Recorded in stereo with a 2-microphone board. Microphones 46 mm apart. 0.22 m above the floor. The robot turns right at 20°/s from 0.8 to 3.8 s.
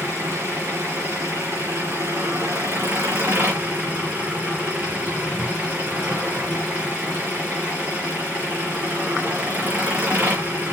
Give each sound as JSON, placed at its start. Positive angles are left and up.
{"t": 0.0, "sound": "an engine running", "azimuth_deg": -100, "distance_m": 5.0}